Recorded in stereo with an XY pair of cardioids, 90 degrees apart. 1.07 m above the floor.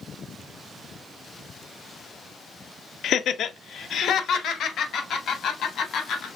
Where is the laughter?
70° left, 0.5 m; by 6.3 s 75° left, 2.5 m.